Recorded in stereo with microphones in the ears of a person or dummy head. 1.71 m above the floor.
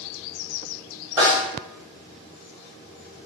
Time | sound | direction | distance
1.2 | a snare drum | 5° right (ahead or behind) | 1.6 m